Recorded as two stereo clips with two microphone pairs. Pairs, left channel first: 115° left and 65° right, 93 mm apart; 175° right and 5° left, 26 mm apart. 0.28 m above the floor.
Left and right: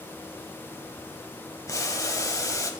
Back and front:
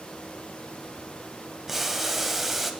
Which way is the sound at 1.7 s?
80° left.